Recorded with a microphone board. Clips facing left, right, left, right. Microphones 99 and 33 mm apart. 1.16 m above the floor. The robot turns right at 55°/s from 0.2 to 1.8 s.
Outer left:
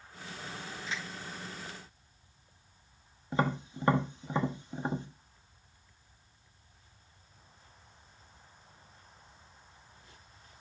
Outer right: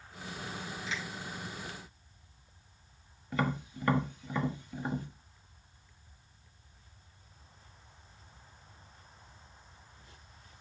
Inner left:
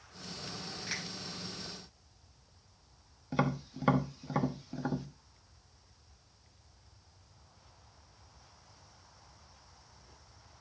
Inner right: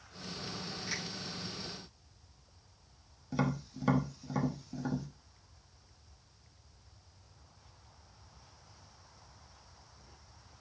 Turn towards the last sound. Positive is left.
turn(degrees=25)  # may be behind; listen again after turning